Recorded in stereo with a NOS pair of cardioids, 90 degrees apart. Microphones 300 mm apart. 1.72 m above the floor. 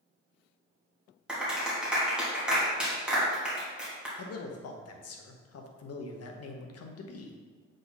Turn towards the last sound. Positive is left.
turn(degrees=55)